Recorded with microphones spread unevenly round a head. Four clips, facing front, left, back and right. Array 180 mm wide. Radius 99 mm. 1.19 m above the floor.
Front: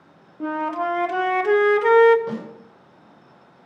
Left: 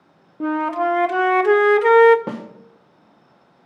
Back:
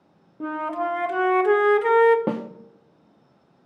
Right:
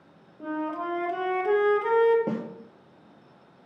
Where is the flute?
75° left, 0.7 m.